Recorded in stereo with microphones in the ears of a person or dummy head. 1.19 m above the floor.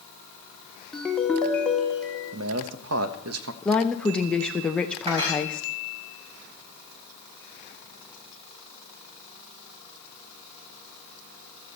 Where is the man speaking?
80° right, 1.2 m.